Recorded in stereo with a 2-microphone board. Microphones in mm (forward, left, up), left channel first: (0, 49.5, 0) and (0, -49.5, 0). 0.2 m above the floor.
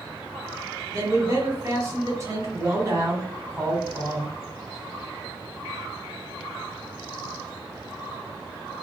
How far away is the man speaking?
About 1.3 m.